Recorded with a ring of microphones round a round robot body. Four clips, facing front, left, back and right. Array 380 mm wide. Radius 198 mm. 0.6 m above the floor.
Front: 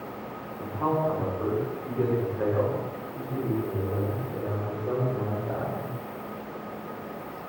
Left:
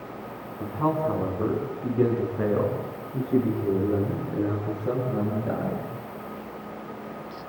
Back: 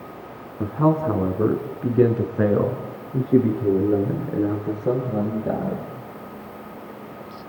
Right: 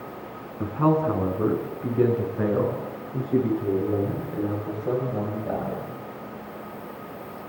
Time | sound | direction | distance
0.6 | a man speaking | 165° right | 6.5 m